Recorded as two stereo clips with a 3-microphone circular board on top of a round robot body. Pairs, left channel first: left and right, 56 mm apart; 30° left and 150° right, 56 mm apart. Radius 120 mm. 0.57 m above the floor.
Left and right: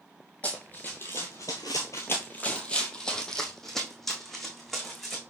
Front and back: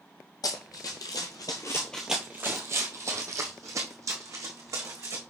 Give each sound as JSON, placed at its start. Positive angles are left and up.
{"t": 0.4, "sound": "running footsteps", "azimuth_deg": 20, "distance_m": 1.1}